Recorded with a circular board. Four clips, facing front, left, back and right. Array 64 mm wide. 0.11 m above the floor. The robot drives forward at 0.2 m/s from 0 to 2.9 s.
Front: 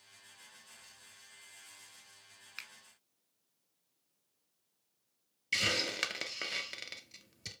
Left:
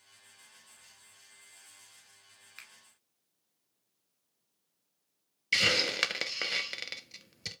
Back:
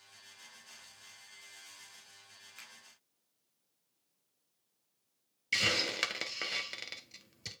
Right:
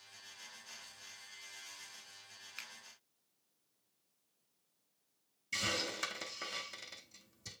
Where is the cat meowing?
I don't hear a cat meowing.